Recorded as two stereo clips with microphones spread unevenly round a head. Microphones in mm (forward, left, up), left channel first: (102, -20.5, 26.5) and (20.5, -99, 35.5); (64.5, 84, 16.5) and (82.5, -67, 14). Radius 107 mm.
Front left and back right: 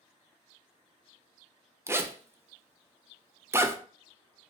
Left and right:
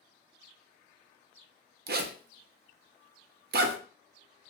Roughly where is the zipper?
Ahead right.